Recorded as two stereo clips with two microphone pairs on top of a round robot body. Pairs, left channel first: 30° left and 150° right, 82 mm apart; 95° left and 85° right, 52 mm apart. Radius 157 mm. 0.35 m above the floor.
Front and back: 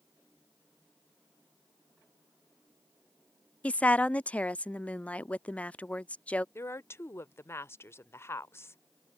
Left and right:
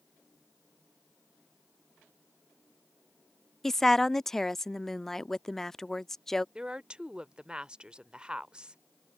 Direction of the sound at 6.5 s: 15° right.